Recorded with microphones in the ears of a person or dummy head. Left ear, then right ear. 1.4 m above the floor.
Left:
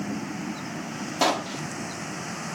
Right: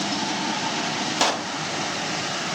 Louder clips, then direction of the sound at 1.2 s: Left 1 dB; 60° right (ahead or behind).